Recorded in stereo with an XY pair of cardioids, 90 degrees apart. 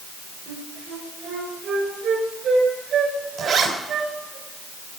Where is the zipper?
70° right, 4 m.